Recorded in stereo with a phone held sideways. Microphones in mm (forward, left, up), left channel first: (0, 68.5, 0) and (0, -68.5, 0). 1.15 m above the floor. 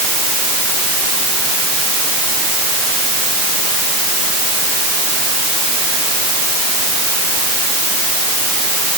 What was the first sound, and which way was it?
Only background noise.